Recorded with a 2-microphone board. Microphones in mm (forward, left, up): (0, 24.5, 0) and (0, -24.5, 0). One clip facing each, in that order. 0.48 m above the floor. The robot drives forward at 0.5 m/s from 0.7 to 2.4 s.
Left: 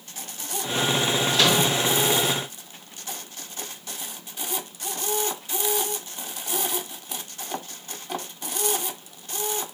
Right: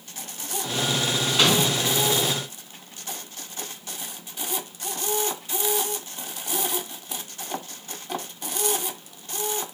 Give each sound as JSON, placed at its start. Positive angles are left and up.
{"t": 1.3, "sound": "a microwave", "side_deg": -25, "distance_m": 4.0}